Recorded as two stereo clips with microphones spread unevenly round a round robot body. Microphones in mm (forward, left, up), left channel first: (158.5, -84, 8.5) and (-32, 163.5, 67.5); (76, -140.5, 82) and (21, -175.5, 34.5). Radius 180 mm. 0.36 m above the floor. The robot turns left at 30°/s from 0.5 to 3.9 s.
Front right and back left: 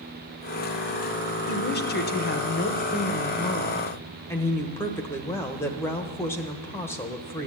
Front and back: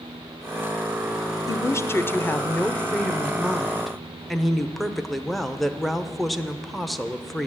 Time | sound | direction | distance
1.5 | a woman speaking | 45° right | 1.0 m